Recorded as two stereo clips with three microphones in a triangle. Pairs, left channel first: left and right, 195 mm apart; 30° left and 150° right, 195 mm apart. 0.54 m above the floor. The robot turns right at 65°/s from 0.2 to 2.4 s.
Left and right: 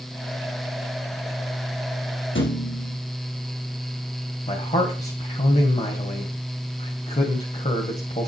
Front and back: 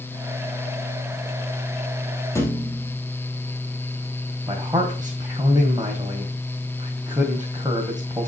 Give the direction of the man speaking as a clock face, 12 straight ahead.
7 o'clock.